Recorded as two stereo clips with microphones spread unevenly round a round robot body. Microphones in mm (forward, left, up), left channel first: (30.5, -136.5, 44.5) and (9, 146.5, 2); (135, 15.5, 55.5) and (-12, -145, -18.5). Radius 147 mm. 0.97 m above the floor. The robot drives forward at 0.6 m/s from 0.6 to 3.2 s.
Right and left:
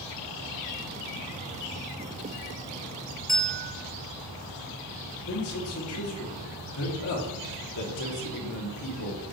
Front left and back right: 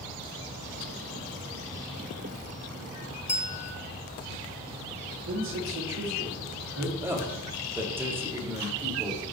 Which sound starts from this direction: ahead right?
A man speaking, at 7.0 s.